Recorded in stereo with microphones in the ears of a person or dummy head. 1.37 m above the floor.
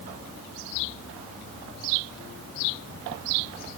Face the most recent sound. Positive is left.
No sound to turn to.